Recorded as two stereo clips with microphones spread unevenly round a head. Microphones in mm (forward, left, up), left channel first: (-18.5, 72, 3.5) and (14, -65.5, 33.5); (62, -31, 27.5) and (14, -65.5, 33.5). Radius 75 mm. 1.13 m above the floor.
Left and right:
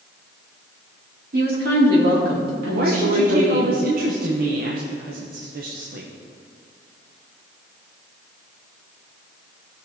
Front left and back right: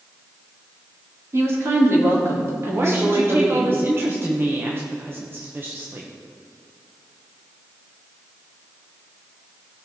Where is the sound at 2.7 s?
95° right, 1.1 m.